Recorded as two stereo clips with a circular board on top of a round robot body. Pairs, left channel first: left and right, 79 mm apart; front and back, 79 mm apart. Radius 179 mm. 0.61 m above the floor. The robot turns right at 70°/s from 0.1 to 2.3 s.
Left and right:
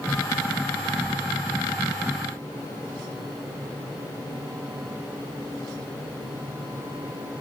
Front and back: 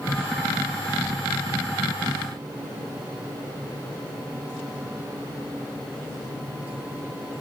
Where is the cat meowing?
I don't hear a cat meowing.